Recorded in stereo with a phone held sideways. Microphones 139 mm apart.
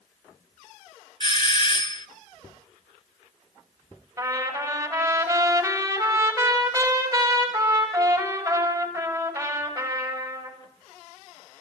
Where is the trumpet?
20° right (ahead or behind), 6 m.